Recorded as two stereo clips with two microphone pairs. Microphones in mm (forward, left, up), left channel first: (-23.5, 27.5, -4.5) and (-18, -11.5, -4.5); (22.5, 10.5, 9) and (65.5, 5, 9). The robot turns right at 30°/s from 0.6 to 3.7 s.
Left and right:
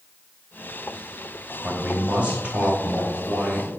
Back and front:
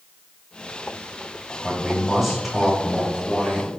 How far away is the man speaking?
About 1.0 m.